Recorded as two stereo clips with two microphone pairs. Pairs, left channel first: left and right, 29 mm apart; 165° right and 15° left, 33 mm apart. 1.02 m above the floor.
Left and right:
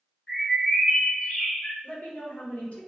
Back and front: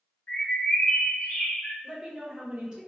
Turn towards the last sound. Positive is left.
turn(degrees=80)